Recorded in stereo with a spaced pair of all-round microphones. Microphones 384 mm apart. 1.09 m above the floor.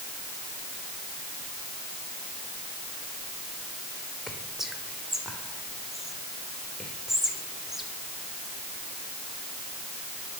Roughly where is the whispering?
Centre.